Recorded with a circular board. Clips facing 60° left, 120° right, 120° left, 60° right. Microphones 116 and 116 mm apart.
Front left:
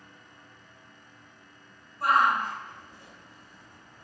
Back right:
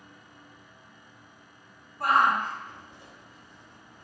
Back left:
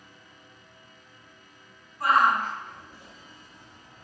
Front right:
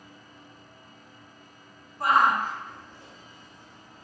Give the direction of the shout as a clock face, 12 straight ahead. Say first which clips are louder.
Even, even; 4 o'clock.